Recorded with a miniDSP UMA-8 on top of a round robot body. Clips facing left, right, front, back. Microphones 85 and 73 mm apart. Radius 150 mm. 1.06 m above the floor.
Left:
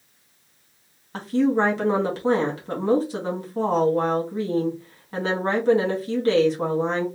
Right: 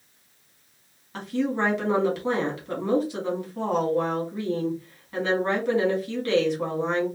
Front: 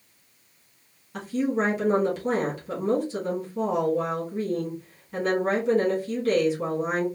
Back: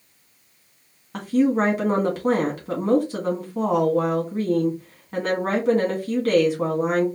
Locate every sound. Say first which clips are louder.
1.1 s a woman speaking: left 6 dB, back 6 dB; 145° left, 2.0 m